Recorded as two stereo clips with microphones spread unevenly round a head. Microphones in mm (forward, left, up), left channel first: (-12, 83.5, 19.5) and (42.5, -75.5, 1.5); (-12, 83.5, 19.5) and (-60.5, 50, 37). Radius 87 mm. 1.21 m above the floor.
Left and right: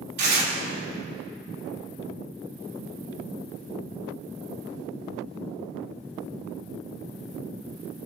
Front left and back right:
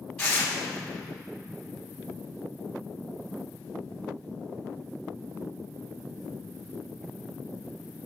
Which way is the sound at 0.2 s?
45° right.